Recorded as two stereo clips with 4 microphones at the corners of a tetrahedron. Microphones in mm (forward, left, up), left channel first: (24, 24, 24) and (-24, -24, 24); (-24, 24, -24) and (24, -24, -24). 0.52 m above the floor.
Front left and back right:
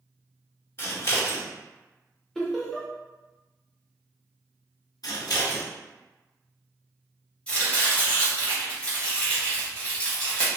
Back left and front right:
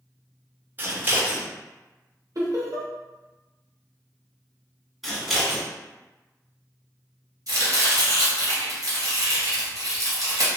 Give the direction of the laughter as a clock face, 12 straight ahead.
1 o'clock.